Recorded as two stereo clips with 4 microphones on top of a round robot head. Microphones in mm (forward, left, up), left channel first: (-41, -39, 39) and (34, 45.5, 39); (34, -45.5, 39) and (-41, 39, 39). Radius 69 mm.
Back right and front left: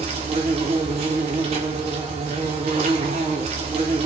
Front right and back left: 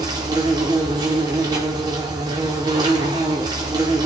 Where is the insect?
80° left, 1.8 m.